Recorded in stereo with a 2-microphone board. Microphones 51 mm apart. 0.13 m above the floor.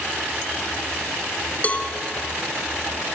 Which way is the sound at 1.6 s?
30° left (ahead or behind).